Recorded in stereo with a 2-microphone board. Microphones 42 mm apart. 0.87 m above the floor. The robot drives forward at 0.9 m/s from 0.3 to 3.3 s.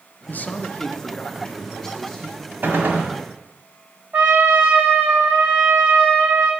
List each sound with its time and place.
0.3 s a man speaking: 45° left (ahead or behind), 0.6 m; by 2.5 s 10° left (ahead or behind), 2 m
2.6 s a gunshot: 50° right (ahead or behind), 1.7 m; by 3.1 s 40° right (ahead or behind), 2.0 m
4.1 s a trumpet: 45° right (ahead or behind), 1.2 m